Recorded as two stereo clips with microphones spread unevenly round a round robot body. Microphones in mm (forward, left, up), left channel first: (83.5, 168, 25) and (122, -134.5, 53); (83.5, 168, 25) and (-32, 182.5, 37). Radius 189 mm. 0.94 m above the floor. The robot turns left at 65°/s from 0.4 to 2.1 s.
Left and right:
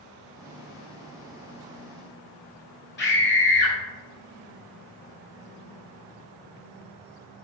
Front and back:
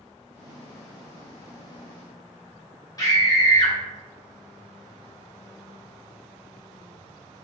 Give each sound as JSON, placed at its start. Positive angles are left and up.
{"t": 3.0, "sound": "a scream", "azimuth_deg": 45, "distance_m": 1.3}